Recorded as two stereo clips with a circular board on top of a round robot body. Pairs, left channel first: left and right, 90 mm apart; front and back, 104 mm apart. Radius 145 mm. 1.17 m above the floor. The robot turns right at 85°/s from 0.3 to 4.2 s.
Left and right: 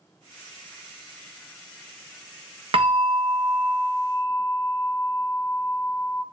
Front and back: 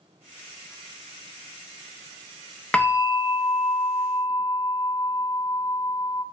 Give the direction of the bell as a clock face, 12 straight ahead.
3 o'clock.